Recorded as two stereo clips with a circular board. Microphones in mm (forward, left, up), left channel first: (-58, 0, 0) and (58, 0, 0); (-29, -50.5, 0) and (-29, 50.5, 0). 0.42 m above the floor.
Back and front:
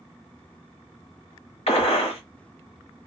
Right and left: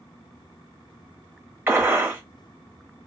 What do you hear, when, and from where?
1.7 s a gunshot: 160° left, 1.0 m